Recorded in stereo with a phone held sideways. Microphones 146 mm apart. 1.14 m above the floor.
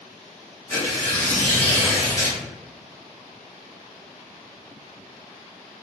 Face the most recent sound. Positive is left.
turn(degrees=15)  # may be behind; listen again after turning